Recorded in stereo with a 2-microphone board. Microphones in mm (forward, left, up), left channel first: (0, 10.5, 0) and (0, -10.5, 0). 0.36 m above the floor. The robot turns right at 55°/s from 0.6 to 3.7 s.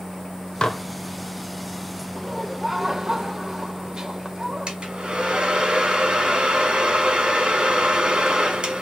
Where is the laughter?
5° right (ahead or behind), 1.2 m; by 4.7 s 30° right (ahead or behind), 1.2 m.